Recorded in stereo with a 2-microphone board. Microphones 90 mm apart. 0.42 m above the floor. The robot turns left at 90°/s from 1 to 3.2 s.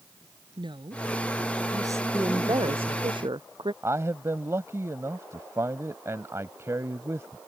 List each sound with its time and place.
0.6 s a woman speaking: 60° right; by 3.1 s 105° left
2.1 s a woman speaking: 25° right; by 3.7 s 120° right
3.8 s a man speaking: 35° right (ahead or behind)